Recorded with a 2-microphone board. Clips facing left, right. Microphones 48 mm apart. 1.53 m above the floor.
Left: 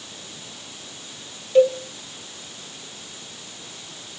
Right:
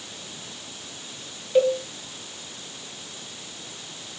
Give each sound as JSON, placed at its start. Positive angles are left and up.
{"t": 1.6, "sound": "a cowbell", "side_deg": -5, "distance_m": 1.5}